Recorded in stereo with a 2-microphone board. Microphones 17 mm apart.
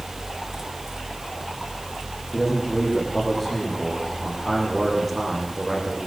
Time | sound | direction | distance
2.3 | a man speaking | centre (ahead or behind) | 10 m